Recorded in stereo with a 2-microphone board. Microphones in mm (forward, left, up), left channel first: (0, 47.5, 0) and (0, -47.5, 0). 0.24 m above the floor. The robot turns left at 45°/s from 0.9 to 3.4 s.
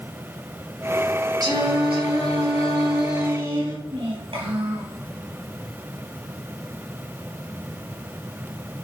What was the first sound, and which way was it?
Singing, 45° right.